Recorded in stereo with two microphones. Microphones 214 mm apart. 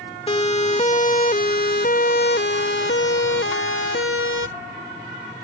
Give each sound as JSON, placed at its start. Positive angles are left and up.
{"t": 0.3, "sound": "a siren", "side_deg": 25}